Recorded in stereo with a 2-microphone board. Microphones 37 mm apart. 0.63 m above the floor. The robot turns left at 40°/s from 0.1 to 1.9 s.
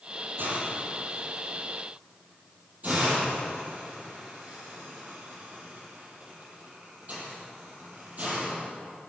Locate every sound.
0.4 s a hiss: 75° right (ahead or behind), 6.5 m; by 8.6 s 45° right (ahead or behind), 6.5 m